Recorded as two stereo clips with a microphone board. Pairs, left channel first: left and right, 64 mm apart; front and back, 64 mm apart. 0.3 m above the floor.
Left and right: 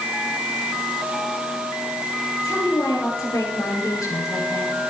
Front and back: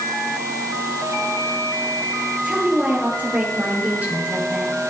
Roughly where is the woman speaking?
Behind left.